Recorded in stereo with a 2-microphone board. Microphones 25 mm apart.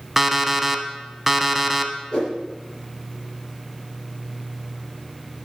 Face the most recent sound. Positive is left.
turn(degrees=40)  # may be behind; listen again after turning